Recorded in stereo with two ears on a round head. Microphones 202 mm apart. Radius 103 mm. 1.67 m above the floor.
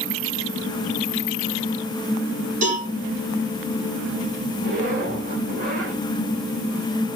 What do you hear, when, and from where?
2.6 s a cowbell: 35° right (ahead or behind), 5.5 m
4.6 s a zipper: 40° right (ahead or behind), 4.5 m